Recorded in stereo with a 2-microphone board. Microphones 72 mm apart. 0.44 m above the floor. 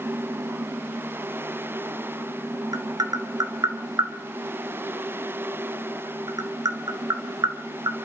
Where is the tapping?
60° right (ahead or behind), 1.7 m.